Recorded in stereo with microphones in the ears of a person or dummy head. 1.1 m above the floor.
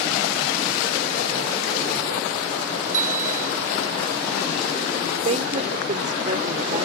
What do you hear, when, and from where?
2.9 s a bicycle bell: 45° right (ahead or behind)
5.1 s a woman speaking: 40° right (ahead or behind)